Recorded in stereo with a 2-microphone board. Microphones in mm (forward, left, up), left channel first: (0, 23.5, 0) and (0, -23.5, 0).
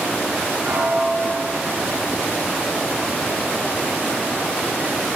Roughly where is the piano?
Right.